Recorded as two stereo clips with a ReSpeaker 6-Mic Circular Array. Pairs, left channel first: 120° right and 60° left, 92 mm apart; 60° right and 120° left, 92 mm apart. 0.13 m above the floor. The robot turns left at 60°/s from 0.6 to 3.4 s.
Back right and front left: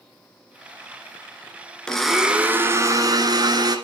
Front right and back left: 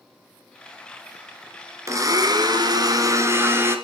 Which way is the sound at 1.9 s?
160° left.